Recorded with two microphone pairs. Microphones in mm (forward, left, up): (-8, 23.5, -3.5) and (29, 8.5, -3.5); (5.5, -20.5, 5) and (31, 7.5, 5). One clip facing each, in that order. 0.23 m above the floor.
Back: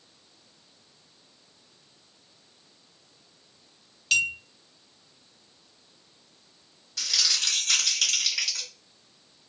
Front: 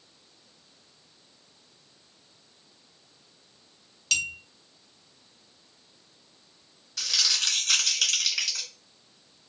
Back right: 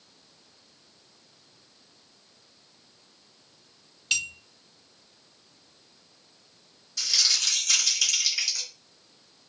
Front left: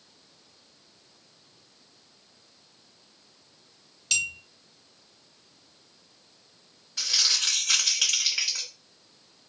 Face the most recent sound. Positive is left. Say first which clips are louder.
# even, even
turn(degrees=70)